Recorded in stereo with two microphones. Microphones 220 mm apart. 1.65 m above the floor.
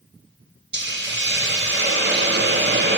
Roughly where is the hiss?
Right.